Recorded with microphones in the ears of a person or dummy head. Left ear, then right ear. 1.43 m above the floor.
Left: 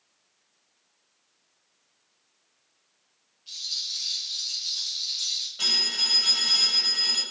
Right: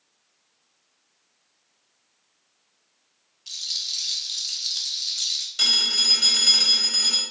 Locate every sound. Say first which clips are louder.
3.5 s a rattle: right 3 dB; 45° right (ahead or behind), 1.6 m
5.6 s a phone ringing: right 4 dB; 80° right, 3.5 m